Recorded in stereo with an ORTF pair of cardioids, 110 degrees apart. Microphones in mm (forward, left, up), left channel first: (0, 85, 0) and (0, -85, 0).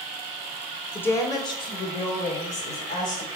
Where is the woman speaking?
10° left, 1.2 m; by 3.3 s 45° left, 3.5 m.